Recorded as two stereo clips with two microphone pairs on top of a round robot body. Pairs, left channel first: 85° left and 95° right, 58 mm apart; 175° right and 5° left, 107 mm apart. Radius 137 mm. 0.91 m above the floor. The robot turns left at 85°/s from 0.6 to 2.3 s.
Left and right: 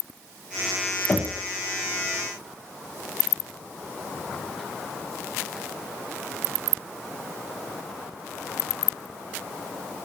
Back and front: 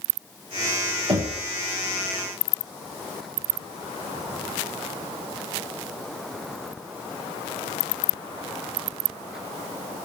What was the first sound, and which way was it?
Knocking, 35° left.